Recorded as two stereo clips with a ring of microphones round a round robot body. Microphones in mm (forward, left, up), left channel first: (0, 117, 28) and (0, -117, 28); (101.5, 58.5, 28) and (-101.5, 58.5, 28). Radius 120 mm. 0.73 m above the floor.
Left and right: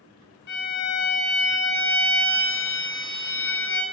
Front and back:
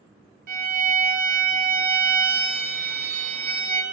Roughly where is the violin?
Behind left.